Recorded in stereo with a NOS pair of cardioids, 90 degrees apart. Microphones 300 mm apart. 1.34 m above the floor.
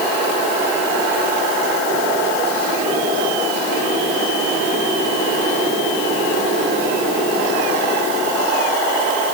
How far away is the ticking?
No ticking in this recording.